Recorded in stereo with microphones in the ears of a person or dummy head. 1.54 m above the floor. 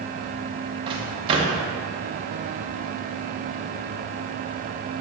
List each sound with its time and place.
0.9 s a microwave: 30° right (ahead or behind), 0.9 m